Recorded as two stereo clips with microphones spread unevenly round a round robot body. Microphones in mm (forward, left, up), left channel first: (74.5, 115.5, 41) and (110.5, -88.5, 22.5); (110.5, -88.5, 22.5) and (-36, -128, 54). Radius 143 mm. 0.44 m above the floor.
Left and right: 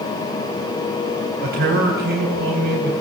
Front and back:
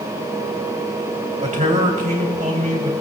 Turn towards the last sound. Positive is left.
turn(degrees=-125)